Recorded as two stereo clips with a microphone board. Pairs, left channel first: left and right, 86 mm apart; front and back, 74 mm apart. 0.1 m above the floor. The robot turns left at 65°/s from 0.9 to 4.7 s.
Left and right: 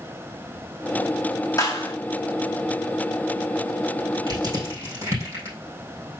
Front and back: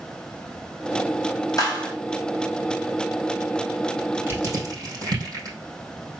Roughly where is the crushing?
Behind right.